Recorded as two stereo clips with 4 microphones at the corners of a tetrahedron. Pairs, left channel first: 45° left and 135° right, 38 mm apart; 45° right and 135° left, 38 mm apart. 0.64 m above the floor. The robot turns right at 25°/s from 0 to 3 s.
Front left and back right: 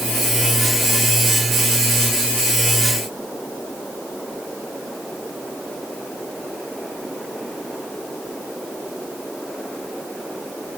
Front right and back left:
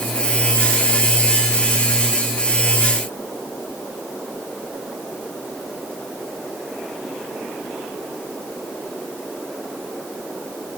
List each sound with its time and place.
Only background noise.